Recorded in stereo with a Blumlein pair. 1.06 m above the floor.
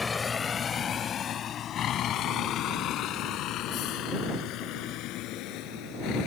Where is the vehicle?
15° left; by 6.3 s 40° left.